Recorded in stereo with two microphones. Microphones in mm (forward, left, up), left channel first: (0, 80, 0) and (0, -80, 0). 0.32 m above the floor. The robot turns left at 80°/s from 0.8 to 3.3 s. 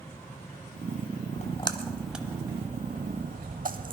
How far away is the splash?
About 0.9 m.